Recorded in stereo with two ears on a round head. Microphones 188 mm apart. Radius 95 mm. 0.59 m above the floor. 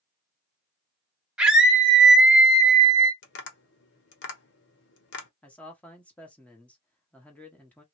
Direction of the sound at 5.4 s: 5° left (ahead or behind).